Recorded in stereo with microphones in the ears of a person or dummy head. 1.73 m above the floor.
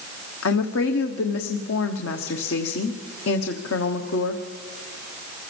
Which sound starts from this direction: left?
A woman speaking, at 0.4 s.